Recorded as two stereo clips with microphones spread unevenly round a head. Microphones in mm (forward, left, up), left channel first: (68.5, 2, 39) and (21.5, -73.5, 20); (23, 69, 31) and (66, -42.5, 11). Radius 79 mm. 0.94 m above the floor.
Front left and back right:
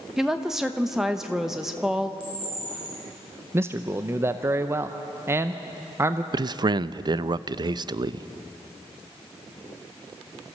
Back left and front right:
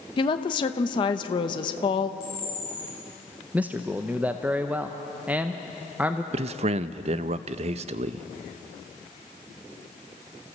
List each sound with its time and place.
0.2 s a woman speaking: 165° left, 0.9 m
2.2 s a camera shutter: 155° right, 6.5 m
3.5 s a man speaking: 130° right, 0.6 m
6.3 s a man speaking: 95° right, 0.5 m